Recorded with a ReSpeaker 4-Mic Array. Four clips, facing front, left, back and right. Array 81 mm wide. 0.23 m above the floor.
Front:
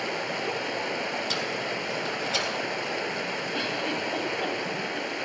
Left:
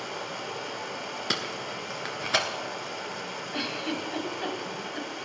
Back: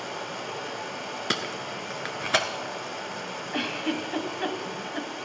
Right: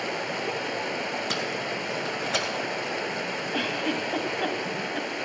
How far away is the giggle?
About 1.1 m.